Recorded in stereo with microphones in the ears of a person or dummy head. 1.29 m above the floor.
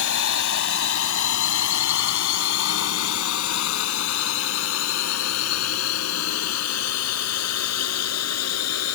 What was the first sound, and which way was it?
A drone, 65° left (ahead or behind).